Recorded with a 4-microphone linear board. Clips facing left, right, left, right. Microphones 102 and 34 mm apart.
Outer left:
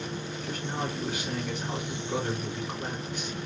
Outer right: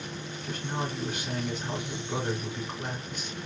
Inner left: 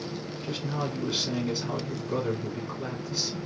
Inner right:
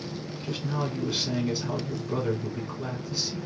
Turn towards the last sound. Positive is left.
turn(degrees=5)  # may be behind; listen again after turning